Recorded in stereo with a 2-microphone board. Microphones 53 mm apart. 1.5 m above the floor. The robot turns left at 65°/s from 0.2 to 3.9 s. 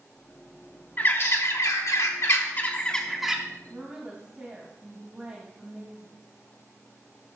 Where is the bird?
145° left, 1.4 m; by 3.4 s 15° right, 1.4 m.